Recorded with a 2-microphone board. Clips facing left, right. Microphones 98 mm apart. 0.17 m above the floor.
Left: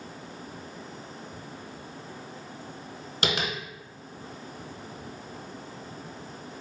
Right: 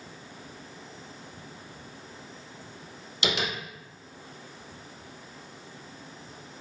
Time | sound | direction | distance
3.2 | tapping | 45° left (ahead or behind) | 1.2 m